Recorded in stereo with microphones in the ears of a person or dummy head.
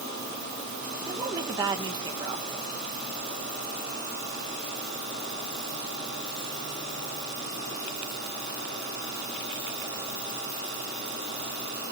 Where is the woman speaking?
20° right (ahead or behind), 1.7 m.